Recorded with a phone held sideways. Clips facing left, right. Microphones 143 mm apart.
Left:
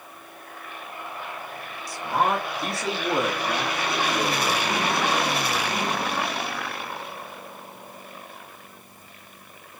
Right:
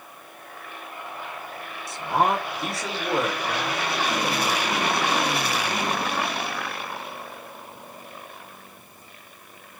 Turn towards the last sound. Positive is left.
turn(degrees=35)  # may be behind; listen again after turning